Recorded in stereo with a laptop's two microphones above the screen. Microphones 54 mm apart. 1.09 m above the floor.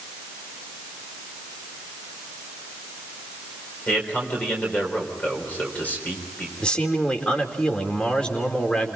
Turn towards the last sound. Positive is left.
turn(degrees=20)  # may be behind; listen again after turning